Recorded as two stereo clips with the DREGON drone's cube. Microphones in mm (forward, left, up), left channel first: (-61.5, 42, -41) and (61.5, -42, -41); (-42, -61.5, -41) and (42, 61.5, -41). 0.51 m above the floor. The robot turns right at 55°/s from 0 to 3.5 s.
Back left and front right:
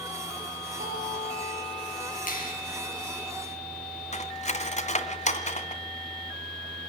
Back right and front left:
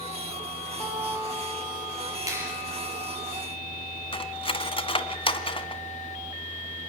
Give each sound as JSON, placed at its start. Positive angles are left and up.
{"t": 0.8, "sound": "a guitar", "azimuth_deg": -40, "distance_m": 7.5}
{"t": 2.3, "sound": "a clap", "azimuth_deg": 125, "distance_m": 8.5}
{"t": 4.1, "sound": "cutlery clinking", "azimuth_deg": -175, "distance_m": 2.0}